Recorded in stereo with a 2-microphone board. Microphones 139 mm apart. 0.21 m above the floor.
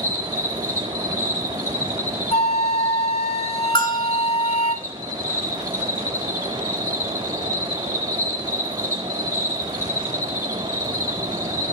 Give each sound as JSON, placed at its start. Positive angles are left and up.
{"t": 0.0, "sound": "an insect", "side_deg": -75, "distance_m": 9.5}
{"t": 2.3, "sound": "a flute", "side_deg": 45, "distance_m": 1.0}
{"t": 3.8, "sound": "a bell", "side_deg": 35, "distance_m": 2.0}